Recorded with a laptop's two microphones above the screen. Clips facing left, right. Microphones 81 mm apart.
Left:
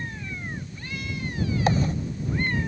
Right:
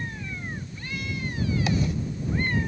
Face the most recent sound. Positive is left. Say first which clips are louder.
# left 5 dB
turn(degrees=40)  # may be behind; listen again after turning